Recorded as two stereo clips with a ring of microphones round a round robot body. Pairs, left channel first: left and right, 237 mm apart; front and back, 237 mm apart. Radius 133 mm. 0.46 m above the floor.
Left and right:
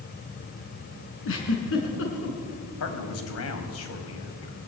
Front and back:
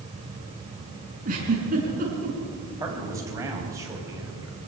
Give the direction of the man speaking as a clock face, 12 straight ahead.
9 o'clock.